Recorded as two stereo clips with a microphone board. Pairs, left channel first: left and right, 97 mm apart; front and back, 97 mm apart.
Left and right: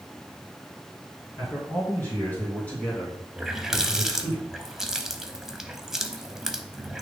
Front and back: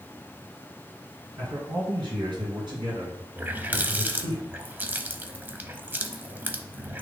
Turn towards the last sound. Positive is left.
turn(degrees=-165)